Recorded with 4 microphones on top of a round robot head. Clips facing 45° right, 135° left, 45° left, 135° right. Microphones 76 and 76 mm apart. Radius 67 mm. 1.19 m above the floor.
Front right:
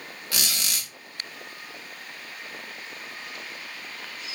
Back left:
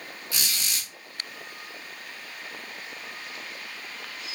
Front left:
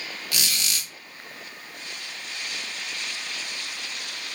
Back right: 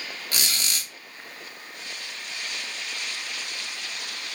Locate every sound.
0.3 s a squeak: 80° right, 1.2 m